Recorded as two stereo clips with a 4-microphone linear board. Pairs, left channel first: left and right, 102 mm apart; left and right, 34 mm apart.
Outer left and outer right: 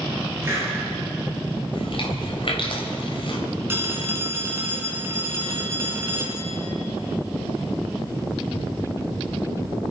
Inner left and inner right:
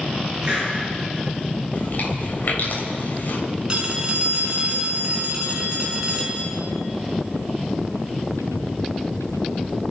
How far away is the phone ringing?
About 3 m.